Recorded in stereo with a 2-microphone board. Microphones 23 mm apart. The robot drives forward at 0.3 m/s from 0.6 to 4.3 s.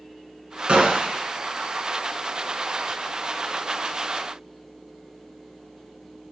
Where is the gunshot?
50° right (ahead or behind), 0.6 m; by 1.3 s 60° right (ahead or behind), 0.5 m.